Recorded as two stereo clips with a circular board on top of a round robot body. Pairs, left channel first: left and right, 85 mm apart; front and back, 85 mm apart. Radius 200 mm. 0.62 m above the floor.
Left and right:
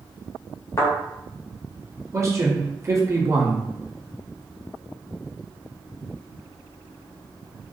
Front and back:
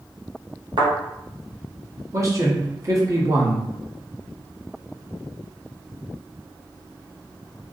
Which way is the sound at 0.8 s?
150° left.